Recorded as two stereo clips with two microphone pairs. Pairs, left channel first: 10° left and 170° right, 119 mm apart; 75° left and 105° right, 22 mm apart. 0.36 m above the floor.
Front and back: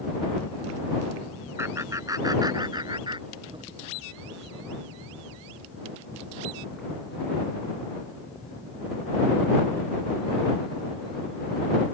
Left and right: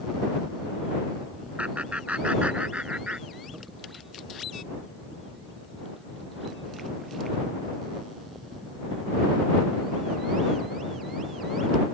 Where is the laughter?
105° right; by 3.7 s 125° right.